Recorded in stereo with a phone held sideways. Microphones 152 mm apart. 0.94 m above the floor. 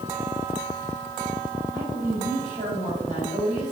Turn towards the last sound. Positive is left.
turn(degrees=-60)  # may be behind; listen again after turning